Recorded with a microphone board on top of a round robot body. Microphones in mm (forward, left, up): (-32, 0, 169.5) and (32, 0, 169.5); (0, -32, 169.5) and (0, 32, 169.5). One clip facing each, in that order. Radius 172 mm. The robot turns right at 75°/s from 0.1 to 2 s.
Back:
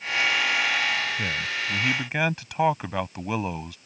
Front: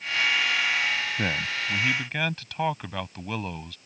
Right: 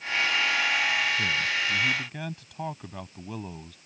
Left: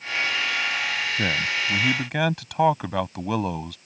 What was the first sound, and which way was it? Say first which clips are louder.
A man speaking: even, left 2 dB; 45° left.